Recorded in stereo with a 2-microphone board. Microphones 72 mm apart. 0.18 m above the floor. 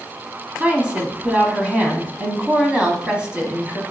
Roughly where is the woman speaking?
Centre.